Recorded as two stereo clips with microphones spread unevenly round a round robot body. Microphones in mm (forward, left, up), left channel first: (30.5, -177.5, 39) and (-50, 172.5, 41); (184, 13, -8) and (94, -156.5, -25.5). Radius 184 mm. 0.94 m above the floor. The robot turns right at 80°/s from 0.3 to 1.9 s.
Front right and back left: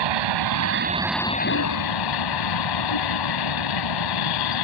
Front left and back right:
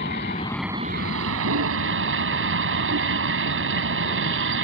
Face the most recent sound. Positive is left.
turn(degrees=-105)